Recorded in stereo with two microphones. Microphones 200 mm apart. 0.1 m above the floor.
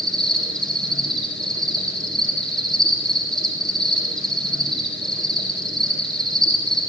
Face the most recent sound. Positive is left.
turn(degrees=5)  # may be behind; listen again after turning